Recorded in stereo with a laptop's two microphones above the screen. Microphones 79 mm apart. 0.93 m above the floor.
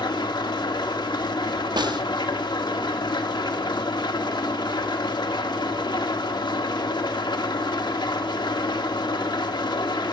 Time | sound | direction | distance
0.0 | an engine running | 75° left (ahead or behind) | 1.0 m
1.8 | a snare drum | 75° right (ahead or behind) | 0.6 m